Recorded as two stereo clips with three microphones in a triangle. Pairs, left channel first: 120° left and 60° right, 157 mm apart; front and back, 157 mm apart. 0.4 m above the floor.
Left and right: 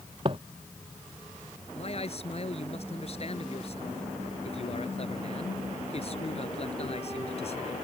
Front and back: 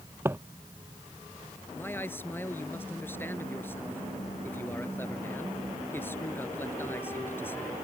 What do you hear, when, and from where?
0.2 s footsteps: 105° right
1.8 s a man speaking: 75° left